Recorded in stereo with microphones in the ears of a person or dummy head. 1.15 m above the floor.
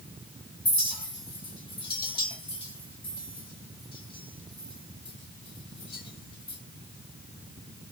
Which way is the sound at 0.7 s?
25° left (ahead or behind).